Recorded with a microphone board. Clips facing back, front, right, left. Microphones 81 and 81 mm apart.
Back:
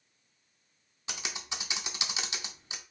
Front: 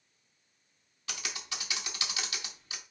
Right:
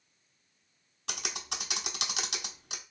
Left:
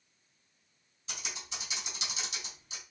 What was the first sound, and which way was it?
Typing on a keyboard, 110° right.